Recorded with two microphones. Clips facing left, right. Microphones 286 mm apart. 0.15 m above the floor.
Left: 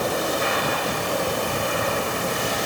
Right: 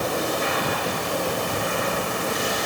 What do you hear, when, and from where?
Only background noise.